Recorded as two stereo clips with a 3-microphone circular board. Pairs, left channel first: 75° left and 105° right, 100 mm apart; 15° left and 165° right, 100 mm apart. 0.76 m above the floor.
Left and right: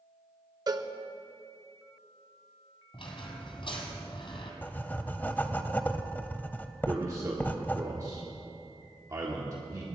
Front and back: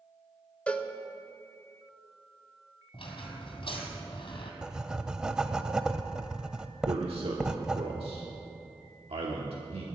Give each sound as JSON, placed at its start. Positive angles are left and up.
{"t": 0.7, "sound": "a cowbell", "azimuth_deg": -60, "distance_m": 0.7}
{"t": 2.9, "sound": "a squeak", "azimuth_deg": 45, "distance_m": 2.0}
{"t": 4.6, "sound": "writing", "azimuth_deg": 125, "distance_m": 0.6}
{"t": 6.9, "sound": "a man speaking", "azimuth_deg": -160, "distance_m": 1.3}